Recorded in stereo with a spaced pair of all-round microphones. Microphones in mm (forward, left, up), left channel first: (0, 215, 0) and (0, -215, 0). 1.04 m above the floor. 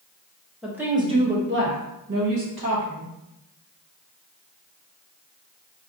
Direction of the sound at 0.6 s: Centre (ahead or behind).